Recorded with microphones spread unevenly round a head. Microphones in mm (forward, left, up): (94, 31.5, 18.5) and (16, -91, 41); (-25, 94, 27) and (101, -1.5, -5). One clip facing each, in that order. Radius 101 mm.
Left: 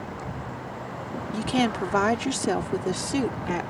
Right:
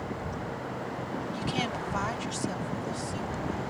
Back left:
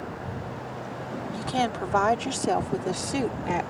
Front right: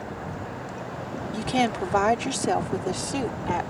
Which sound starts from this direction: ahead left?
A woman speaking, at 1.3 s.